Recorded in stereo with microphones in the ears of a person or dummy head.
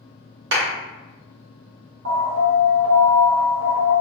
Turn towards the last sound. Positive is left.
turn(degrees=-65)  # may be behind; listen again after turning